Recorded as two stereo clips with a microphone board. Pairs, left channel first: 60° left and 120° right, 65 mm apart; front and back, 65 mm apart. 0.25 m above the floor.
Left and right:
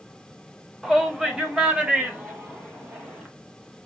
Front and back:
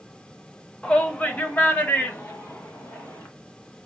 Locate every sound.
0.8 s a shout: 45° right, 0.9 m; by 3.3 s 50° right, 2 m